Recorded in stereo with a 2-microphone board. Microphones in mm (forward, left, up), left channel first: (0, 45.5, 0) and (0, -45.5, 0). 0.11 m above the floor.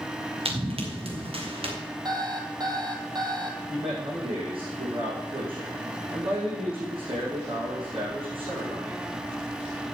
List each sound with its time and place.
0.5 s running footsteps: 90° right, 4 m; by 1.7 s 85° right, 5 m
2.0 s an alarm clock: 45° right (ahead or behind), 2.0 m
3.7 s a man speaking: 70° right (ahead or behind), 7 m